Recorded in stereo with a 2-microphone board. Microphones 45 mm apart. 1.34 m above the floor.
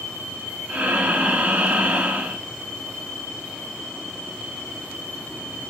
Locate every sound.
0.7 s breathing: 25° right (ahead or behind), 0.7 m